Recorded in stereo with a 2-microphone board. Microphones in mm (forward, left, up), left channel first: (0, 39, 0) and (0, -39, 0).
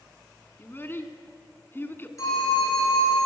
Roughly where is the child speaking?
Left.